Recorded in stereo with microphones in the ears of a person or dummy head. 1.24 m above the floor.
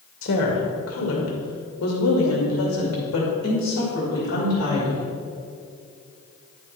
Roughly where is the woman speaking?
Left.